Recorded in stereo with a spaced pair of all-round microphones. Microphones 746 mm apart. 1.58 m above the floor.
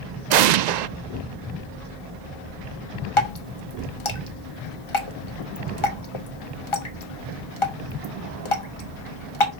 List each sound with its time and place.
0.3 s an explosion: 70° right (ahead or behind), 0.5 m
3.2 s dripping: 40° left (ahead or behind), 1.2 m